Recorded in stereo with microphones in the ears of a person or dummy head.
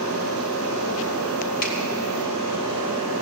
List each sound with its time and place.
1.6 s a finger snap: 50° left (ahead or behind), 3 m